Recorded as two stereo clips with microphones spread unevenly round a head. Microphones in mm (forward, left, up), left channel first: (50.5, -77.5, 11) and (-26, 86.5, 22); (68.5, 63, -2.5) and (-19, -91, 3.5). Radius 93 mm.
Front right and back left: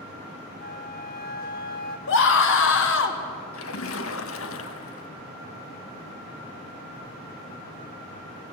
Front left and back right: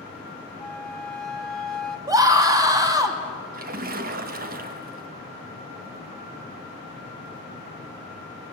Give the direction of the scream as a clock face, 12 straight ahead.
2 o'clock.